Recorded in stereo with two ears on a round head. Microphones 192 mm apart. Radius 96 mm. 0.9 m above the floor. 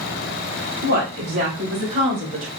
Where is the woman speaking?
50° right (ahead or behind), 2.5 m; by 2.5 s 25° right (ahead or behind), 2.5 m.